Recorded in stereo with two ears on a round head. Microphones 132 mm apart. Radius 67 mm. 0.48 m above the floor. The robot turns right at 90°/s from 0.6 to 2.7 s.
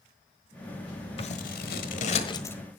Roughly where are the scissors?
Left.